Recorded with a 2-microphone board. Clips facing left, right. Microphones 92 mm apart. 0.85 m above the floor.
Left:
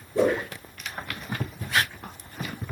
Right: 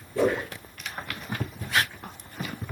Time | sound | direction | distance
0.1 | a whoosh | 20° left (ahead or behind) | 7 m